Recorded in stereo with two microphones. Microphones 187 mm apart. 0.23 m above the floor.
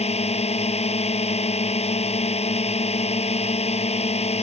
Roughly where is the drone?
Left.